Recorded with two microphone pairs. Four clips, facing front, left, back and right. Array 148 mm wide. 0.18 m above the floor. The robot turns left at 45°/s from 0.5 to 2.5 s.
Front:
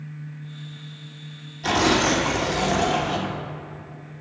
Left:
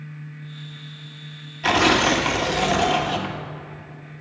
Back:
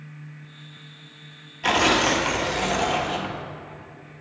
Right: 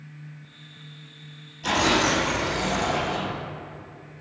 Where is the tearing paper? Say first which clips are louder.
Left 4 dB, even; 135° left, 0.9 m; by 3.3 s 95° left, 0.9 m.